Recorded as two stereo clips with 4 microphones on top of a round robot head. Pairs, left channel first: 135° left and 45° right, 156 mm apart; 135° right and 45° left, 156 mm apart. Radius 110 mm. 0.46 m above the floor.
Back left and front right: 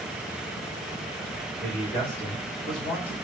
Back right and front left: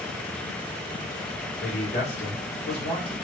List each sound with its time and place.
1.6 s a man speaking: 100° right, 1.9 m; by 3.1 s 165° right, 1.4 m